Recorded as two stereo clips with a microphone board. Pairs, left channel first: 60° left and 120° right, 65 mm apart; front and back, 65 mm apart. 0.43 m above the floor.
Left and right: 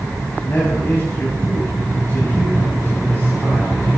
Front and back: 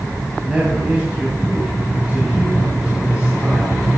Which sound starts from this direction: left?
A man speaking, at 0.4 s.